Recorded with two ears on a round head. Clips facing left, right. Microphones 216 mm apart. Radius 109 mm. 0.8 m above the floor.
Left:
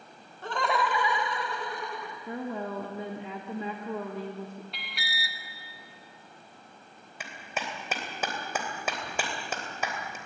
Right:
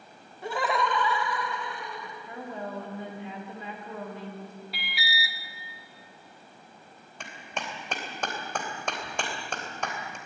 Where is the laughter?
10° right (ahead or behind), 2 m; by 2.2 s 45° left (ahead or behind), 2.5 m.